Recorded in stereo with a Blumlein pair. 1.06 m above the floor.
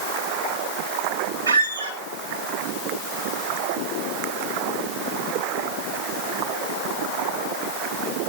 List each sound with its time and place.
1.5 s a squeak: 65° right, 3.5 m